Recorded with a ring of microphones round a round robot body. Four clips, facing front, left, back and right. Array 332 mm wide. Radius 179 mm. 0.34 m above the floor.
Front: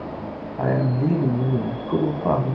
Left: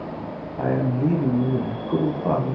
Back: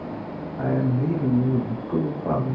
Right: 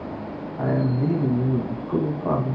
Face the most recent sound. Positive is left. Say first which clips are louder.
# left 1 dB, front 2 dB
turn(degrees=25)